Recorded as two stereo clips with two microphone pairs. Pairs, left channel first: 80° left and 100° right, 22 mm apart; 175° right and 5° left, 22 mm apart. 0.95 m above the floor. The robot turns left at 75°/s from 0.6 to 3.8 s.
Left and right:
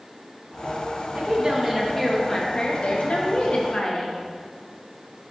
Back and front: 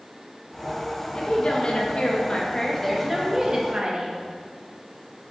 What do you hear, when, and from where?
1.1 s a woman speaking: 125° right, 1.4 m; by 4.1 s 35° left, 1.4 m